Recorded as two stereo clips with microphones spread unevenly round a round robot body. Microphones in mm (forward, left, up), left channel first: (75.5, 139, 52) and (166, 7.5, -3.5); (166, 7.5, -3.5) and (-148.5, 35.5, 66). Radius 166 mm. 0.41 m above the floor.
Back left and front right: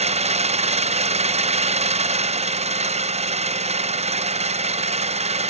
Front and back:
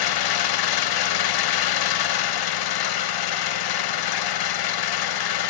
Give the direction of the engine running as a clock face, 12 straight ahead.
12 o'clock.